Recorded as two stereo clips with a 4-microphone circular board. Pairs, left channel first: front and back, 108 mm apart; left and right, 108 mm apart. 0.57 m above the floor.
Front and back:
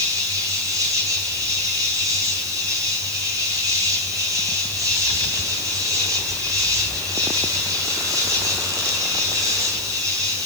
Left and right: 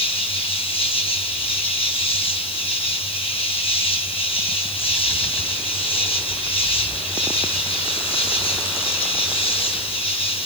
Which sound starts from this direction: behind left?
An insect, at 0.0 s.